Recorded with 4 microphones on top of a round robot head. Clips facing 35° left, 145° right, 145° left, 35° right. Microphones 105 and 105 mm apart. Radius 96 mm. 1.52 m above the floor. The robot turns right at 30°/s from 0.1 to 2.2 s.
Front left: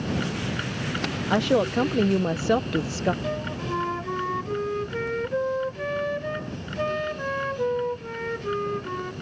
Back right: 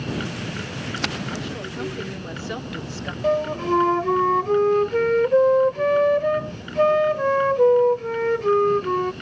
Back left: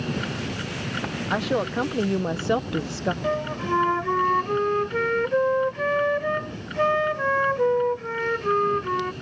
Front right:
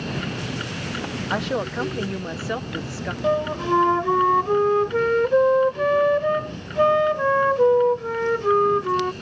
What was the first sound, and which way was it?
A woman speaking, 55° left.